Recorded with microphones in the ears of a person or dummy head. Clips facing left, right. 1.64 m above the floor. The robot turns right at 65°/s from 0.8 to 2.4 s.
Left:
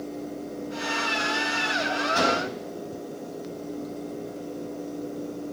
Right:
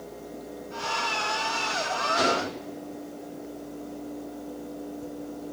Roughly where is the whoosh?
Left.